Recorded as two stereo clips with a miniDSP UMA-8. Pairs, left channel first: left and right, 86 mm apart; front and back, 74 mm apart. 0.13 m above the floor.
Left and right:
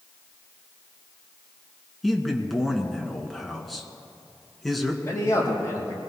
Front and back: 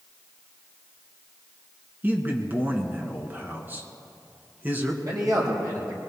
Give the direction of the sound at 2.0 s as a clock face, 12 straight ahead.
6 o'clock.